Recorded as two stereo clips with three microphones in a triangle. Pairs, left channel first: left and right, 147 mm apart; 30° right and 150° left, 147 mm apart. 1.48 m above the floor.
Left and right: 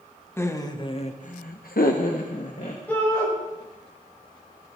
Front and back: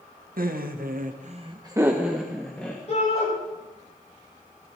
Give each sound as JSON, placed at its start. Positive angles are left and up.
{"t": 0.4, "sound": "laughter", "azimuth_deg": 165, "distance_m": 1.6}
{"t": 2.9, "sound": "a shout", "azimuth_deg": 10, "distance_m": 7.5}